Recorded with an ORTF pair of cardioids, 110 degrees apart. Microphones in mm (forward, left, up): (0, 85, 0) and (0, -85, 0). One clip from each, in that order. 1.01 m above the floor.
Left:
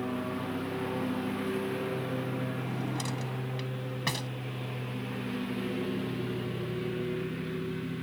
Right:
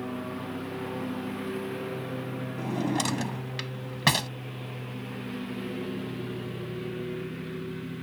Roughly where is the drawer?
Ahead right.